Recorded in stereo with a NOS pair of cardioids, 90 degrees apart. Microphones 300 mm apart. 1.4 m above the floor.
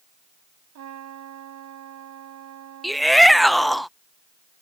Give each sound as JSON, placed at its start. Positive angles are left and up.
{"t": 0.8, "sound": "a trumpet", "azimuth_deg": -65}
{"t": 2.8, "sound": "a shout", "azimuth_deg": 0}